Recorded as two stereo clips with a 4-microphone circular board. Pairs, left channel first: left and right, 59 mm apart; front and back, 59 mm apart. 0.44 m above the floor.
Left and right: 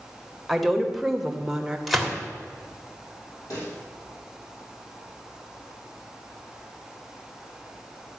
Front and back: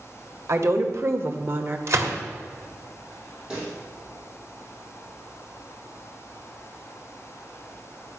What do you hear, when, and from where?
0.5 s a woman speaking: straight behind, 1.6 m; by 1.8 s 155° right, 1.2 m
1.9 s a gunshot: straight behind, 1.7 m
3.5 s a pop: 105° left, 6.5 m